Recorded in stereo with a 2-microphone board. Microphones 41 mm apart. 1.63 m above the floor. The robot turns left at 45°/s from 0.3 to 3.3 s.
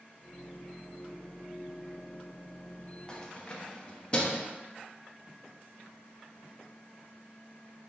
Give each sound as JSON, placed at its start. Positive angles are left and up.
{"t": 3.1, "sound": "keys jangling", "side_deg": 20, "distance_m": 0.7}